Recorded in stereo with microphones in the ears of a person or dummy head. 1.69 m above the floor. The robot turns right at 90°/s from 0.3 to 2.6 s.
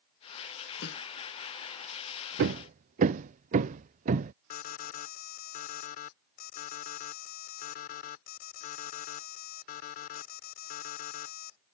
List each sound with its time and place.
0.8 s a snare drum: 65° left (ahead or behind); by 1.1 s 85° left
2.4 s hammering: 60° right (ahead or behind); by 4.3 s 40° right (ahead or behind)
4.5 s an alarm: 45° left (ahead or behind)